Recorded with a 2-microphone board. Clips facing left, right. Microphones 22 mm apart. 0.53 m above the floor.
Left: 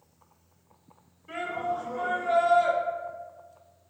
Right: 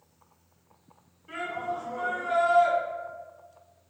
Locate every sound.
1.3 s a shout: centre (ahead or behind), 1.4 m